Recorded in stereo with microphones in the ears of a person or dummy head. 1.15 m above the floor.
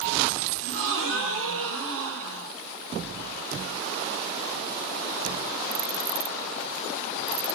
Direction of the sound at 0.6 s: 65° right (ahead or behind).